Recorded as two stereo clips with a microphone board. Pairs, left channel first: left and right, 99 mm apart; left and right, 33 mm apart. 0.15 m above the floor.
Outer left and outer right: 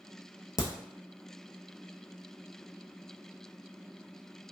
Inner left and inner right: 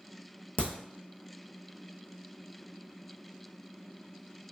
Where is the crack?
40° left (ahead or behind), 0.8 m.